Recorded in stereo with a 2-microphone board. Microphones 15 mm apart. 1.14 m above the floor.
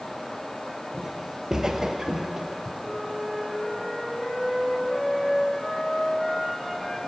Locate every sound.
0.9 s footsteps: 20° right (ahead or behind), 1.8 m; by 2.7 s 30° right (ahead or behind), 2 m
2.8 s a flute: 40° left (ahead or behind), 5.5 m